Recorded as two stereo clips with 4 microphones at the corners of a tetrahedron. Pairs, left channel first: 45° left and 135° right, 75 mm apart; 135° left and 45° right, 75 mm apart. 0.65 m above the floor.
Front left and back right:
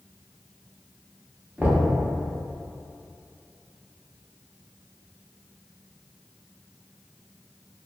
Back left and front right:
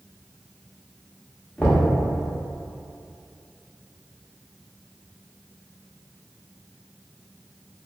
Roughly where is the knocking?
Behind.